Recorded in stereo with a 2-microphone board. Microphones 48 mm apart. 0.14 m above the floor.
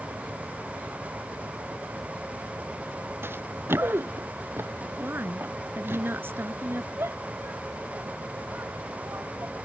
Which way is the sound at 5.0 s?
55° right (ahead or behind).